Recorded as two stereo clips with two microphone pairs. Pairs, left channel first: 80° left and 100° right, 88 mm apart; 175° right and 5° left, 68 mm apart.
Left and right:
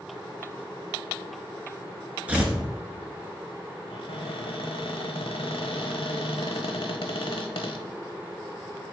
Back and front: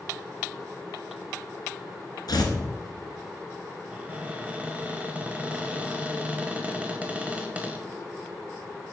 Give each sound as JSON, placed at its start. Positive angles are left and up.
{"t": 2.3, "sound": "tearing paper", "azimuth_deg": -175, "distance_m": 1.3}
{"t": 3.9, "sound": "a cupboard door", "azimuth_deg": 70, "distance_m": 0.8}